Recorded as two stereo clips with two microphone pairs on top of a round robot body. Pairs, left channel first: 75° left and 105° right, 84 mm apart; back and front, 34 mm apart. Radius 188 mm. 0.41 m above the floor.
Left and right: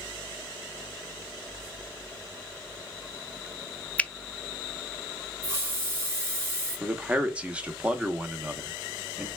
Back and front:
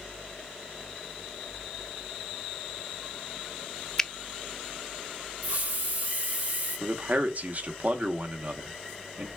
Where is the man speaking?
30° right, 1.2 m.